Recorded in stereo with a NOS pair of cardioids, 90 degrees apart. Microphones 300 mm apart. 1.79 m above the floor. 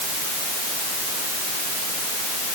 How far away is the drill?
I don't hear a drill.